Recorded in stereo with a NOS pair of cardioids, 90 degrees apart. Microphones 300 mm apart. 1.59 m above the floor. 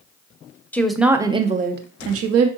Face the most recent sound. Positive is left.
turn(degrees=-60)